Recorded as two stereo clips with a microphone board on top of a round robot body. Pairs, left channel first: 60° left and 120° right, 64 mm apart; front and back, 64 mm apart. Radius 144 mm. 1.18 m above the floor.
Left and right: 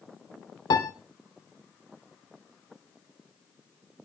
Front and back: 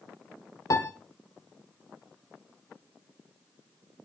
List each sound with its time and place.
0.7 s a piano: 40° left, 0.6 m